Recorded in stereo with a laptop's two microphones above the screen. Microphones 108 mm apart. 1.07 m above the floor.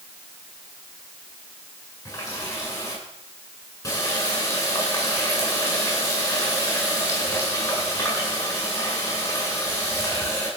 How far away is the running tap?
About 8.5 m.